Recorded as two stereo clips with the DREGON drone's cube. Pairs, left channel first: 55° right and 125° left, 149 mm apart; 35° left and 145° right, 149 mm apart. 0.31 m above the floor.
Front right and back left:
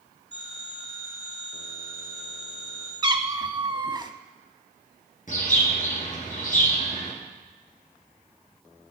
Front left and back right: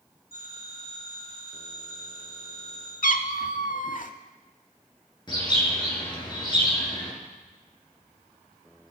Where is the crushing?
No crushing in this recording.